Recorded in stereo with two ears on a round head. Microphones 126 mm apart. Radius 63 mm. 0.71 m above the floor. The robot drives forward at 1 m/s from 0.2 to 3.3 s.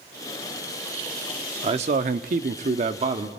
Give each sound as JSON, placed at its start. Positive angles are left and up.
{"t": 1.6, "sound": "a man speaking", "side_deg": -40, "distance_m": 1.2}